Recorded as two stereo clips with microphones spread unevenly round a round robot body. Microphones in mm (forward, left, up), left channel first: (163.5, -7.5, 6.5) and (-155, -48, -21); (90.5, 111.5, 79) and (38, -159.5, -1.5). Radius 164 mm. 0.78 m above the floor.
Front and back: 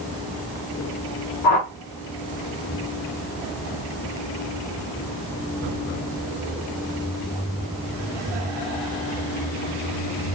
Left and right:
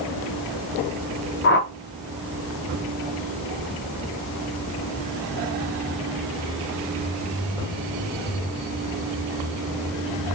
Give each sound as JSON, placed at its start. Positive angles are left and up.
{"t": 1.4, "sound": "a whoosh", "azimuth_deg": 30, "distance_m": 0.6}